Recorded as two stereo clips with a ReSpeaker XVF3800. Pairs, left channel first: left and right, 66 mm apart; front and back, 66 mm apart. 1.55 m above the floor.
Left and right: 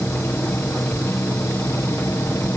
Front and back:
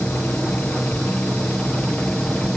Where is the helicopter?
50° left; by 2.6 s 70° left.